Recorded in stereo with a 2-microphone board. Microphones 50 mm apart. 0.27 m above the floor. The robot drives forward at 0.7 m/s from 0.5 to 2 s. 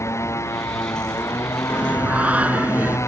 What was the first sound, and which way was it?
A motorcycle, 70° left (ahead or behind).